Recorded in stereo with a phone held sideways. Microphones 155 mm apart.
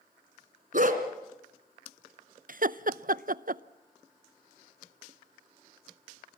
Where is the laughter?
60° right (ahead or behind), 0.6 m.